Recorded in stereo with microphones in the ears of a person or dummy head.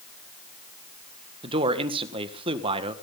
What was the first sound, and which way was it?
A man speaking, 30° right (ahead or behind).